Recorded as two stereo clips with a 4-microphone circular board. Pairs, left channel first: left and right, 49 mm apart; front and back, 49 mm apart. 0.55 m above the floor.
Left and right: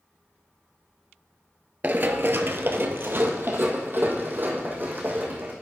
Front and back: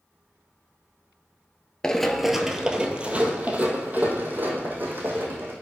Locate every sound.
1.8 s running footsteps: 70° right, 0.6 m; by 5.5 s 135° right, 2 m